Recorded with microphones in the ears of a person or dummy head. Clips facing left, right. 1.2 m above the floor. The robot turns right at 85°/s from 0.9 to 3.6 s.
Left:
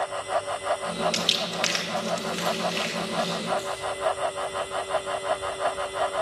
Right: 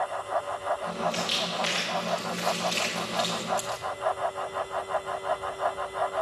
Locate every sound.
1.1 s crumpling: 30° left (ahead or behind), 1.9 m; by 3.8 s 60° right (ahead or behind), 1.9 m